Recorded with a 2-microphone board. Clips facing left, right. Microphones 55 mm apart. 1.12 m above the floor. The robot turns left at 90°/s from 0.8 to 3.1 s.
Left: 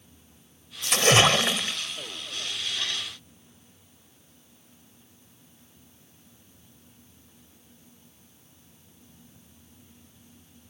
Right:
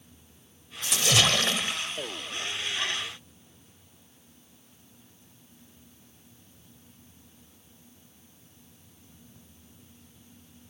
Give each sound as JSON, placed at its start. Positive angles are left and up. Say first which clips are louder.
{"t": 0.8, "sound": "a splash", "louder": "left 5 dB", "azimuth_deg": 70}